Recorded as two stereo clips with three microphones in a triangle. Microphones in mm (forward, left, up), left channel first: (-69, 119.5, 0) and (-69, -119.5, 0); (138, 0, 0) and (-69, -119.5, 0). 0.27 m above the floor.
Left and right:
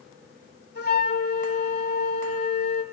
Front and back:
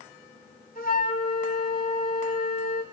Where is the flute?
65° left, 1.7 m.